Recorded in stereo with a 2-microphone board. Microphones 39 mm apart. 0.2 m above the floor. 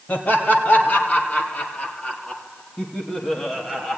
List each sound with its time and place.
0.1 s laughter: 45° left (ahead or behind), 5.5 m; by 4.0 s 10° left (ahead or behind), 7 m